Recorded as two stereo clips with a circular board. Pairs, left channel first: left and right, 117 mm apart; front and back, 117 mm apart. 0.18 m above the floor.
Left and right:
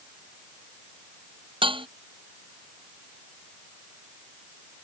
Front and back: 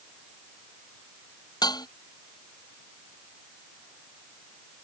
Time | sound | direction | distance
1.6 | dishes clattering | 50° right | ?